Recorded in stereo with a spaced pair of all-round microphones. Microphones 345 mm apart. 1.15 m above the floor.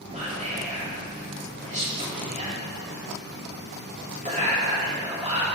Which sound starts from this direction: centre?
Whispering, at 0.1 s.